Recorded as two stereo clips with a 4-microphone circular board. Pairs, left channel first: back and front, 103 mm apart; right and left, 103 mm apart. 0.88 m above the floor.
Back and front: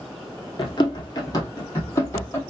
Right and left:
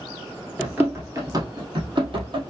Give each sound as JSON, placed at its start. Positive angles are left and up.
{"t": 0.6, "sound": "running footsteps", "azimuth_deg": 165, "distance_m": 1.1}